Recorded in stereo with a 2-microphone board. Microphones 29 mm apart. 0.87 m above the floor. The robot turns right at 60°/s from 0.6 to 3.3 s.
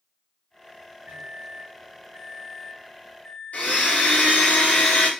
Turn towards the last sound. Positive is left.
turn(degrees=55)  # may be behind; listen again after turning